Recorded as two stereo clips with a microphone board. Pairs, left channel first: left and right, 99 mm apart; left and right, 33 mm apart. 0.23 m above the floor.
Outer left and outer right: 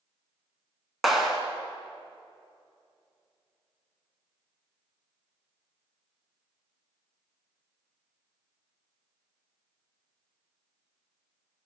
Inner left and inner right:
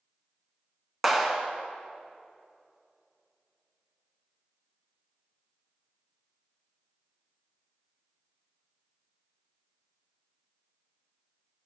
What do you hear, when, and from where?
1.0 s a clap: centre (ahead or behind), 1.4 m